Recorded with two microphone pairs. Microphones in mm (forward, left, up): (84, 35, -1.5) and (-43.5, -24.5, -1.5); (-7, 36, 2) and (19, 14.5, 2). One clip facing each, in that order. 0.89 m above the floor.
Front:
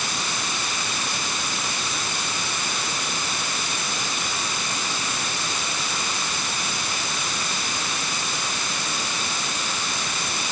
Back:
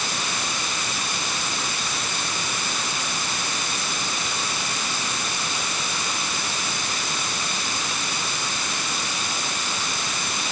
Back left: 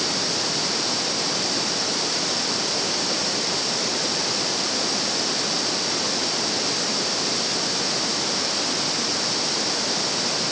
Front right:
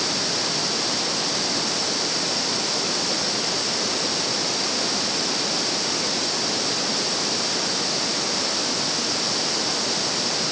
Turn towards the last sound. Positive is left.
No sound to turn to.